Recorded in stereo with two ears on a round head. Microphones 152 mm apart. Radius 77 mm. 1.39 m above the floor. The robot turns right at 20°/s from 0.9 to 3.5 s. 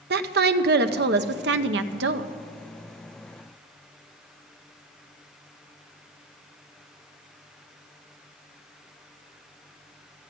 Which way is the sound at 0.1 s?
65° right (ahead or behind).